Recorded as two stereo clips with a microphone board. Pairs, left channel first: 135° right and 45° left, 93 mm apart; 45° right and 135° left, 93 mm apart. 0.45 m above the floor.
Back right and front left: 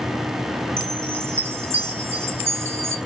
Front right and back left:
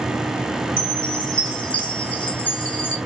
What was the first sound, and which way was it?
A chime, 20° left.